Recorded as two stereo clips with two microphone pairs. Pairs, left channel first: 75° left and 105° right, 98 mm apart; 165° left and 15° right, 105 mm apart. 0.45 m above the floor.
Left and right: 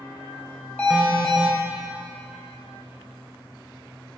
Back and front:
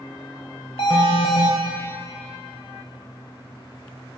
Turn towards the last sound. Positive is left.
turn(degrees=150)